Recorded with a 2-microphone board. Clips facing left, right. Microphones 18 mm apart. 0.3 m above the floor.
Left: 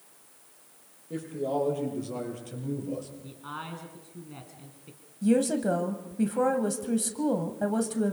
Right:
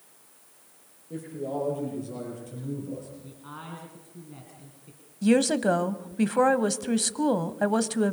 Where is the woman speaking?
45° right (ahead or behind), 1.4 m.